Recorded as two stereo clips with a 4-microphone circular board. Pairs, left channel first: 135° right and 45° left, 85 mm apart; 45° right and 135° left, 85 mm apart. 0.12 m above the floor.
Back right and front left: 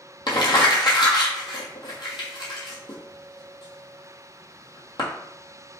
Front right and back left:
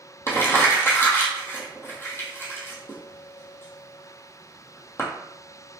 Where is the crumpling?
105° right, 1.0 m.